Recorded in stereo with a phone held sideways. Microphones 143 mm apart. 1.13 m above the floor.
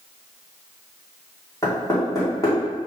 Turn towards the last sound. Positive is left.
turn(degrees=25)  # may be behind; listen again after turning